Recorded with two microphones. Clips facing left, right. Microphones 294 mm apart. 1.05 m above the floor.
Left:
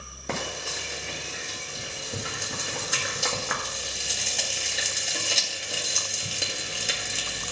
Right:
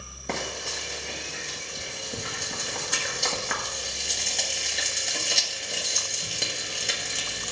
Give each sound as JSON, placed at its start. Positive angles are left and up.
{"t": 0.3, "sound": "frying", "side_deg": 0, "distance_m": 1.6}